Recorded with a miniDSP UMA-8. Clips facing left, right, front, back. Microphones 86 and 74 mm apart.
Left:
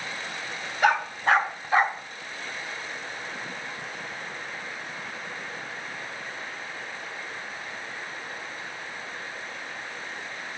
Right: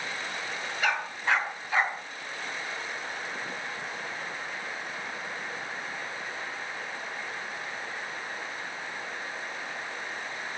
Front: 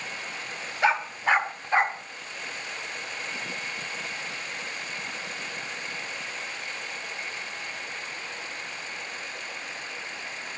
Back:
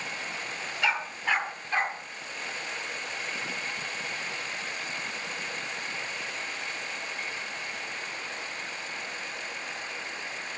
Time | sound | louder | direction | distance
0.8 | a dog barking | left 7 dB, front 5 dB | 60° left | 2.5 m